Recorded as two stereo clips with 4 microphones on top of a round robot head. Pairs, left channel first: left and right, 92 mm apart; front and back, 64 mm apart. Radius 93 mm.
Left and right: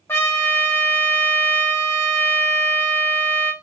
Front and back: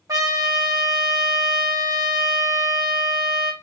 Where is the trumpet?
155° left, 0.8 m.